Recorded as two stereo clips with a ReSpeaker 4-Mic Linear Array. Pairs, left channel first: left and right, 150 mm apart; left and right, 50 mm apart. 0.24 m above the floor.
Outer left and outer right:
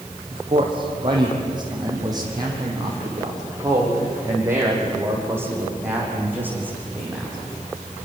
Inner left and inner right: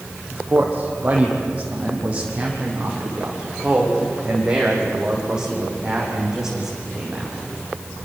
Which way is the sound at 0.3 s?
35° right (ahead or behind).